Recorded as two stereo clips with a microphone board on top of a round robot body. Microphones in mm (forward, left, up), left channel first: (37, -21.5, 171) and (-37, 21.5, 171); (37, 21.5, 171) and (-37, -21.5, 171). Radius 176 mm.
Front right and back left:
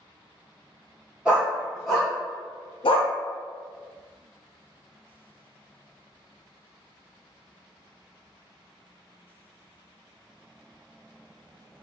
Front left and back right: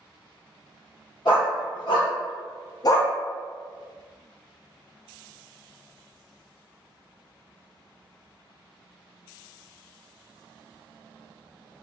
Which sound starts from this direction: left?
A dog barking, at 1.2 s.